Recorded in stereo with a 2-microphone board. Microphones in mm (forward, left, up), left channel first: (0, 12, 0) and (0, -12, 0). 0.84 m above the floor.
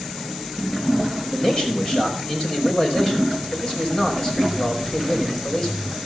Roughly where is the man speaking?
Left.